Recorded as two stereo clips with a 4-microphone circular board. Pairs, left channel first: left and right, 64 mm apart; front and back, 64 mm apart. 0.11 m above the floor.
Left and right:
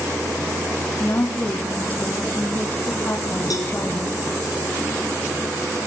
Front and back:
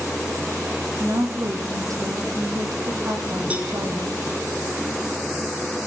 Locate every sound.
1.0 s a woman speaking: 150° left, 4 m
3.5 s a cowbell: 110° left, 3 m